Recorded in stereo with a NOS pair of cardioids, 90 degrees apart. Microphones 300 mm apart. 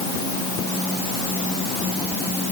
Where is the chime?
I don't hear a chime.